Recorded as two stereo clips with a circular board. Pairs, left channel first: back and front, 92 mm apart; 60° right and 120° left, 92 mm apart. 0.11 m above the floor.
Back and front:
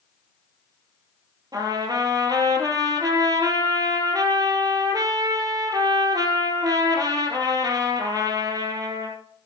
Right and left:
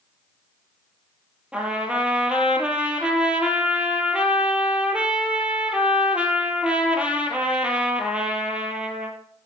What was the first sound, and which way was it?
A trumpet, 45° left.